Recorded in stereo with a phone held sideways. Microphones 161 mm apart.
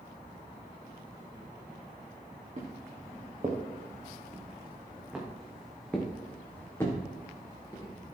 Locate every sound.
2.6 s footsteps: 45° right (ahead or behind), 3.5 m; by 7.9 s 25° left (ahead or behind), 4 m